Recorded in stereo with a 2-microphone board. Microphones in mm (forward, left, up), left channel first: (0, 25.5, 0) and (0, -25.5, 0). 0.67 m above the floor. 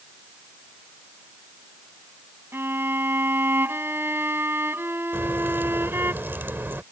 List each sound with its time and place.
2.5 s a violin: 45° right (ahead or behind)
5.1 s a crack: 45° right (ahead or behind)